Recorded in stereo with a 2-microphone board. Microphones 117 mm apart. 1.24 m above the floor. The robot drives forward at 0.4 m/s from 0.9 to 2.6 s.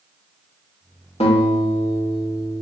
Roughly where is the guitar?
Left.